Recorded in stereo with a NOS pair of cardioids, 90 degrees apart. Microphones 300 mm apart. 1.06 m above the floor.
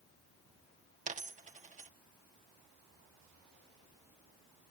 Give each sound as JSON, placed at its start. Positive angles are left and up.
{"t": 1.1, "sound": "a dropped coin", "azimuth_deg": -25, "distance_m": 0.9}